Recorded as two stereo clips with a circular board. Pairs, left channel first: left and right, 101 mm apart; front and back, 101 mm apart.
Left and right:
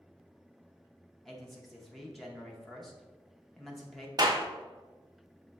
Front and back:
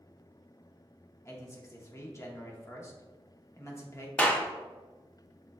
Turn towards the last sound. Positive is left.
turn(degrees=-70)